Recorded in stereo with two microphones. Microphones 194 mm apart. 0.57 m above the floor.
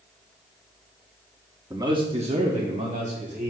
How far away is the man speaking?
About 1.1 m.